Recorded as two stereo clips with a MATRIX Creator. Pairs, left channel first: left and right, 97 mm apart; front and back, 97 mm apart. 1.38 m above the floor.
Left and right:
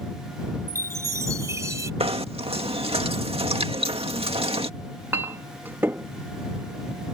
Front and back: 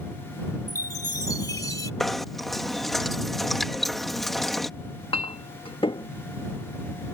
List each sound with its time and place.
0.7 s a chime: 40° right
2.0 s knocking: 90° right
4.8 s a clink: 25° right